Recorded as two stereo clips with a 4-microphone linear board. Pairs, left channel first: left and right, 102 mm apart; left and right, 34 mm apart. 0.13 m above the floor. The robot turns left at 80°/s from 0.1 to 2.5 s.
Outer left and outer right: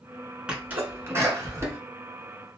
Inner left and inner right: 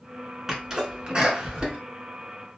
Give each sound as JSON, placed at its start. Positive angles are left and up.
{"t": 0.5, "sound": "a sneeze", "side_deg": -10, "distance_m": 1.1}